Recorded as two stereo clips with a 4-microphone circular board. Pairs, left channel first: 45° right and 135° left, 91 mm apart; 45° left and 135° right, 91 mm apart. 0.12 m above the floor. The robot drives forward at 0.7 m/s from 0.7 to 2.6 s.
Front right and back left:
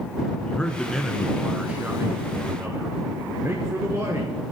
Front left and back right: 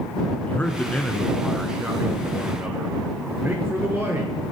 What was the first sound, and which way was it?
A man speaking, 10° left.